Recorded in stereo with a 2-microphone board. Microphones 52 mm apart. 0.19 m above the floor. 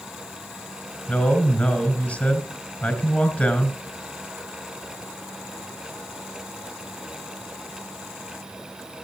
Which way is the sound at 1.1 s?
25° left (ahead or behind).